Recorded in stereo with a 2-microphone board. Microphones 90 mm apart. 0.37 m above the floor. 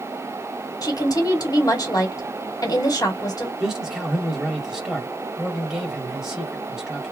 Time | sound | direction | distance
0.8 | a woman speaking | 40° left (ahead or behind) | 1.8 m
3.6 | a man speaking | 5° right (ahead or behind) | 1.5 m